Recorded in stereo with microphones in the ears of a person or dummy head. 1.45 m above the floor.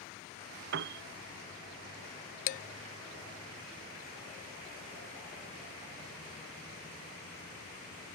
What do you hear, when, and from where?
0.7 s a piano: 60° right (ahead or behind)
2.5 s dishes clattering: 35° left (ahead or behind)